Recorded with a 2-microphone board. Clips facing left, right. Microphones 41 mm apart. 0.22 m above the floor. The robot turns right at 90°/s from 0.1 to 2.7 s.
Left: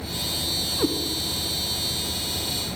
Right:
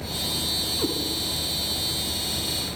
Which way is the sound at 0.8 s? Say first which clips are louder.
Left 4 dB; 15° left (ahead or behind).